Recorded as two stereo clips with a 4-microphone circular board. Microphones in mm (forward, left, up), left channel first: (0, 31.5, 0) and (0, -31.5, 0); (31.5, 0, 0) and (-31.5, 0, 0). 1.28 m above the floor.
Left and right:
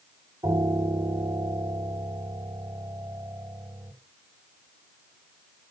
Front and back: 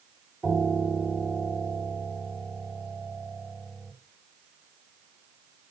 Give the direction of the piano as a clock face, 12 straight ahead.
3 o'clock.